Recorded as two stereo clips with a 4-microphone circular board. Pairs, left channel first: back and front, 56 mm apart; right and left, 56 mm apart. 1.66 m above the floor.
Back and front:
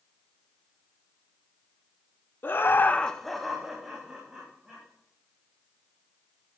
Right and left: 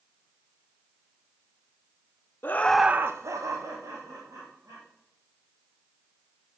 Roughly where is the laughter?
Behind right.